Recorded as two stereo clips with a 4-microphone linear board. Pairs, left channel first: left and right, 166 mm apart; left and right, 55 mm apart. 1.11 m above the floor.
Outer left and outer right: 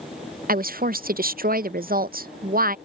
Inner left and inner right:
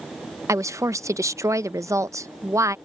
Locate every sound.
0.5 s a woman speaking: 60° right (ahead or behind)